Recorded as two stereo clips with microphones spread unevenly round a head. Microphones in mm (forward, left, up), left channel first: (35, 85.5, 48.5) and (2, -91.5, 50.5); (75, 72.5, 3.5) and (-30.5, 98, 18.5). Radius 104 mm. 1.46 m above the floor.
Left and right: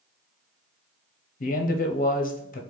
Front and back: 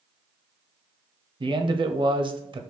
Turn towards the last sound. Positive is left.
turn(degrees=120)